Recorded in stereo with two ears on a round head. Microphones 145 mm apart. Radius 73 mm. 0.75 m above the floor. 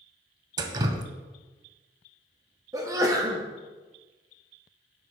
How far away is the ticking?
I don't hear ticking.